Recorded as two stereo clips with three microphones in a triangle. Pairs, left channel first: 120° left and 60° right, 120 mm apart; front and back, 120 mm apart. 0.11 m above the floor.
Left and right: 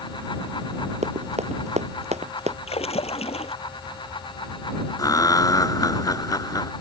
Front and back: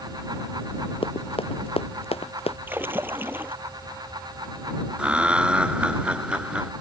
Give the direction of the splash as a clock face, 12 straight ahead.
8 o'clock.